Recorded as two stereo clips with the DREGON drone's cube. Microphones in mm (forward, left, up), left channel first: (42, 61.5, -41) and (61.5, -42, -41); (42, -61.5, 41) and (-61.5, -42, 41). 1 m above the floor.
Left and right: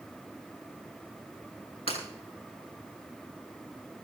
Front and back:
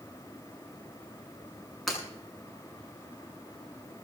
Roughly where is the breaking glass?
Left.